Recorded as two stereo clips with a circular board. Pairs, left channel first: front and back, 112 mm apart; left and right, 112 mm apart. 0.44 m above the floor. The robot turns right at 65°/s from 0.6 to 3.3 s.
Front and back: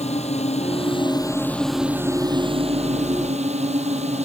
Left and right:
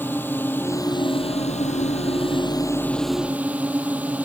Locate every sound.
0.0 s a drone: 15° left; by 4.3 s 165° right